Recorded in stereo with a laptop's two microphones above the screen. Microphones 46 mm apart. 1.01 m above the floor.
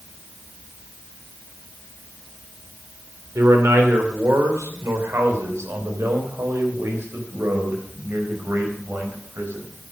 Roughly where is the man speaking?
Right.